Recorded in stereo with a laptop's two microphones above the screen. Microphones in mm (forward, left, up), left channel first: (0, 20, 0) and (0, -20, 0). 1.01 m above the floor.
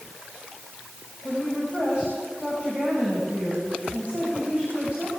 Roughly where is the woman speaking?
Right.